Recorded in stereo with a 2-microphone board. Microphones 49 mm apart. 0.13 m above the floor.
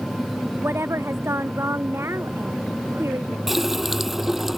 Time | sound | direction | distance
0.6 | a woman speaking | 70° right (ahead or behind) | ?
3.5 | a running tap | 5° right (ahead or behind) | ?